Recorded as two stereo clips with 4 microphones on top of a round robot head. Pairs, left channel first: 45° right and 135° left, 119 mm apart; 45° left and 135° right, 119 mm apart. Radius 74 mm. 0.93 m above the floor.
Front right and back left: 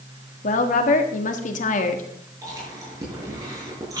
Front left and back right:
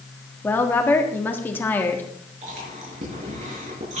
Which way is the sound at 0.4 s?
30° right.